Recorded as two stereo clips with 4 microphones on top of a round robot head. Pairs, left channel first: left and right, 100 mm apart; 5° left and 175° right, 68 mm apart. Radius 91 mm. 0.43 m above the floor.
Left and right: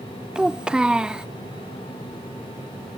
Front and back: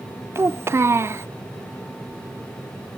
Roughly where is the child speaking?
Behind.